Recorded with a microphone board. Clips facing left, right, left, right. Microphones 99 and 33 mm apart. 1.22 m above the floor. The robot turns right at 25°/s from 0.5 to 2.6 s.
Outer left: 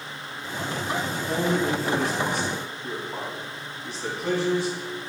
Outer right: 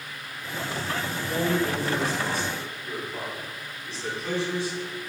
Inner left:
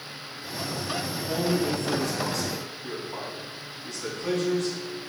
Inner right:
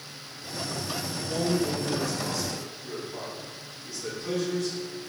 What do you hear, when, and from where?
1.1 s a man speaking: 70° left (ahead or behind), 3 m; by 5.0 s 65° left (ahead or behind), 3 m